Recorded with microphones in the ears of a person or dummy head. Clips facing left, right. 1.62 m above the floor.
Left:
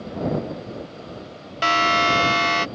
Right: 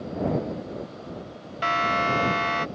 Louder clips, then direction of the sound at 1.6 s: Left 4 dB; 60° left (ahead or behind).